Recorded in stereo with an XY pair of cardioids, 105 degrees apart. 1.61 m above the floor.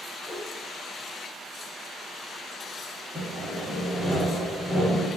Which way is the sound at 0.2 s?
20° left.